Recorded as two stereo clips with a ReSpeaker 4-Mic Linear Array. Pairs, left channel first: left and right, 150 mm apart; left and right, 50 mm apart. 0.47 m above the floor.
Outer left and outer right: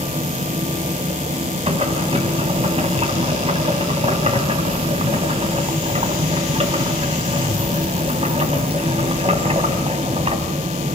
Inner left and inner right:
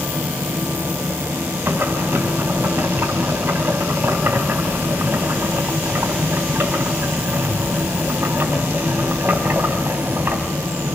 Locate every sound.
1.7 s boiling: 45° right (ahead or behind), 3.5 m